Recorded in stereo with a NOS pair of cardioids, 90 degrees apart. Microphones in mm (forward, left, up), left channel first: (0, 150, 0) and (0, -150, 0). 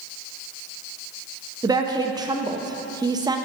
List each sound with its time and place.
1.6 s a woman speaking: 15° right, 0.6 m